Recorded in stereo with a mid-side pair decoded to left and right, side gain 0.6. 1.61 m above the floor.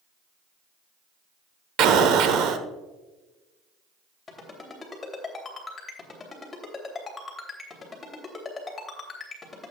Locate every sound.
1.8 s an explosion: 60° right, 1.1 m
4.3 s a ringtone: 25° left, 3 m